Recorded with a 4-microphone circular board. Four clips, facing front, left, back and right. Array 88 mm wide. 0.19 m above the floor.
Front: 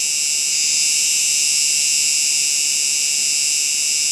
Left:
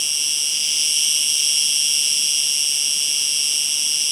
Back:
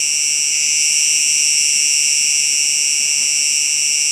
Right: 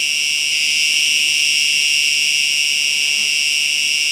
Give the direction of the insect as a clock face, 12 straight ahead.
4 o'clock.